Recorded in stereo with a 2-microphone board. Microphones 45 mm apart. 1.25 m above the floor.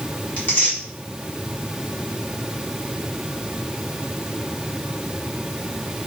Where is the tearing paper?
40° left (ahead or behind), 2 m.